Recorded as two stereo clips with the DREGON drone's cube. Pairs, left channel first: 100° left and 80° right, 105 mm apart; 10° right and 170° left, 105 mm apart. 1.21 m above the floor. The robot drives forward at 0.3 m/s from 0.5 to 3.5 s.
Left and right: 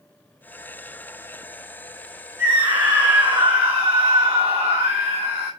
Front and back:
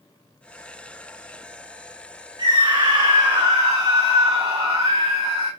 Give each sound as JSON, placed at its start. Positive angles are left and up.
{"t": 2.4, "sound": "a scream", "azimuth_deg": -145, "distance_m": 1.8}